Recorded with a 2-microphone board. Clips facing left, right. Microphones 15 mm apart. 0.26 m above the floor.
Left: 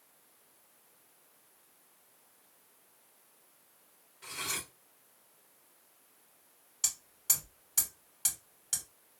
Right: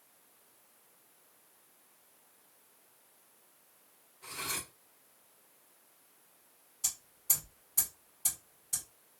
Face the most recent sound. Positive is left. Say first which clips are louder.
# left 3 dB
turn(degrees=65)  # may be behind; listen again after turning